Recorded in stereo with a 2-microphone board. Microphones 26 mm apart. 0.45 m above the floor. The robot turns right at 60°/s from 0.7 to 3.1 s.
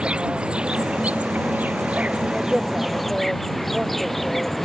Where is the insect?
140° right; by 4.7 s 5° left.